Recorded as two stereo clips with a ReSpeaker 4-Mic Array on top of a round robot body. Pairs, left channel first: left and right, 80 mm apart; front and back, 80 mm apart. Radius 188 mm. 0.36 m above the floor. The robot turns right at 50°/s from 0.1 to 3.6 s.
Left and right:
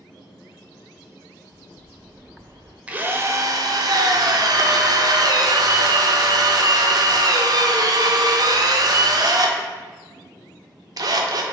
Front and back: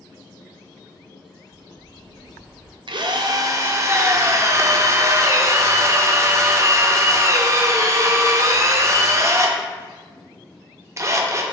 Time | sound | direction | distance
1.5 | a bird | 150° right | 0.9 m
2.9 | a drill | 165° right | 0.5 m